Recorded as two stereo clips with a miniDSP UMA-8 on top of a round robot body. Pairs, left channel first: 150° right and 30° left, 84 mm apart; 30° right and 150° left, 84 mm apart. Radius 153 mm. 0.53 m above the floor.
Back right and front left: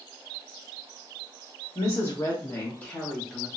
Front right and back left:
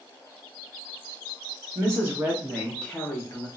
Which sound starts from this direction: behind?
A woman speaking, at 1.8 s.